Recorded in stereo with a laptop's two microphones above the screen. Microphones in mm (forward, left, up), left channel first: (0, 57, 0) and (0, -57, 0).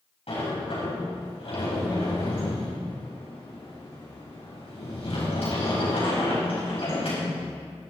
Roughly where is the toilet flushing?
No toilet flushing in this recording.